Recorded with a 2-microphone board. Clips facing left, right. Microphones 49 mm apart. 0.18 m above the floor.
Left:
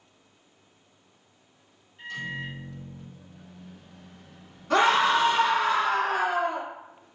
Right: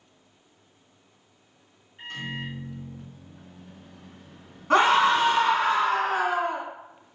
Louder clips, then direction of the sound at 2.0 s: Left 1 dB; 45° right (ahead or behind).